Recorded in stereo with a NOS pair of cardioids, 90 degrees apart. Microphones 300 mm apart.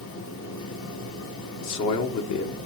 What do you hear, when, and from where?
0.0 s a fan: 65° left, 4 m
1.6 s a man speaking: 70° left, 1.5 m